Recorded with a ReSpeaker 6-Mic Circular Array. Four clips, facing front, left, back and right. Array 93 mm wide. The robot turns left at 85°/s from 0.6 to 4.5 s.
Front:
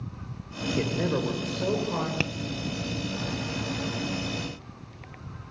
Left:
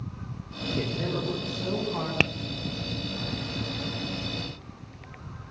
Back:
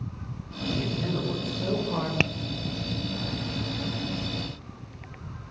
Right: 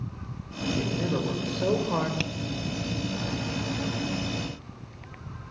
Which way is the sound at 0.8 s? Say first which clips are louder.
Right 1 dB, front 5 dB; 15° left.